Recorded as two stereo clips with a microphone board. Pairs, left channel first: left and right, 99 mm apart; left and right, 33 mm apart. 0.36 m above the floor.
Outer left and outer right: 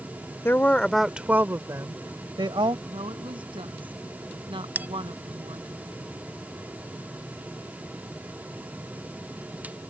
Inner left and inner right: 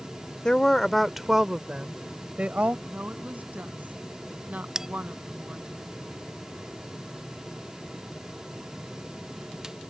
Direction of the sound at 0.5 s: 25° left (ahead or behind).